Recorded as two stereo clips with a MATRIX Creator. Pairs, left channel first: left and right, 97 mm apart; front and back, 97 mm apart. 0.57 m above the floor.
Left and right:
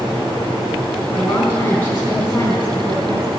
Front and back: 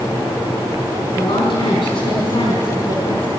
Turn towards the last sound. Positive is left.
turn(degrees=30)